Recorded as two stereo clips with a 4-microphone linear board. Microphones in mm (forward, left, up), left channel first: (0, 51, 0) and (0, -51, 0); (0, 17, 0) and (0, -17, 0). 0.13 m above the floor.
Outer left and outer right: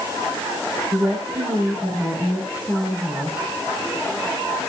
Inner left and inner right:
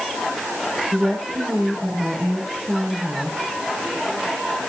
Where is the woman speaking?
10° right (ahead or behind), 7.5 m.